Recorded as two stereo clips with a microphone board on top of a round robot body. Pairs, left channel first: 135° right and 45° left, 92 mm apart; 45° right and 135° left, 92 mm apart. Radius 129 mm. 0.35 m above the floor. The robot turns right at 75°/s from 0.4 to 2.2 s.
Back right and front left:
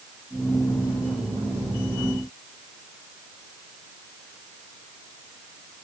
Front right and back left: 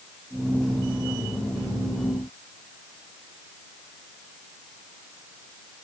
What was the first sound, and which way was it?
Only background noise.